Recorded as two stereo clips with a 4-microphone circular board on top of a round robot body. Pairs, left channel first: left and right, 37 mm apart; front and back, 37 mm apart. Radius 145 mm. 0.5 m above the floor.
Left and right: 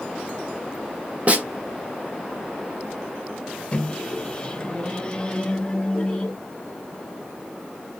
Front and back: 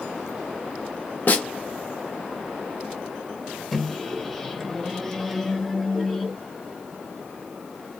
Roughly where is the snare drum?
Ahead right.